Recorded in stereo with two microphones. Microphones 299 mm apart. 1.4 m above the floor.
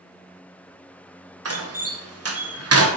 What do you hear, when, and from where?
1.4 s a door slam: 55° right (ahead or behind), 0.6 m